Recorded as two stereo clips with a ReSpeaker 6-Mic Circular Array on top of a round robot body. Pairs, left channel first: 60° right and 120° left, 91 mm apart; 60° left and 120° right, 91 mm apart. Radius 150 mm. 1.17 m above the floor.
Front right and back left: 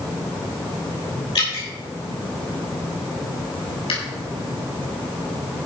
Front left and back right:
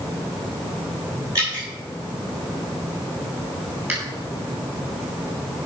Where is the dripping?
70° right, 6.5 m.